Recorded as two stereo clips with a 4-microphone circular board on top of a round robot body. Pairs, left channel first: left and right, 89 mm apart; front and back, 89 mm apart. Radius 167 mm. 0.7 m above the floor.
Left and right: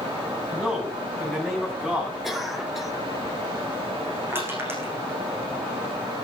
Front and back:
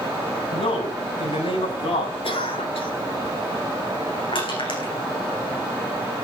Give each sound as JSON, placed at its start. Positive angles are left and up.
{"t": 0.5, "sound": "a man speaking", "azimuth_deg": -10, "distance_m": 7.0}
{"t": 2.2, "sound": "a cough", "azimuth_deg": -5, "distance_m": 4.5}
{"t": 4.3, "sound": "crushing", "azimuth_deg": -25, "distance_m": 8.0}